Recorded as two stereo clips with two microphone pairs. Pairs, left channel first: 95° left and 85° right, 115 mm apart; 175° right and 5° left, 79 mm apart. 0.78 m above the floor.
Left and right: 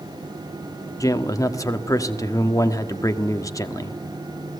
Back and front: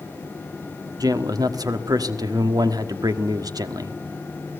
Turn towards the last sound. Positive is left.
turn(degrees=35)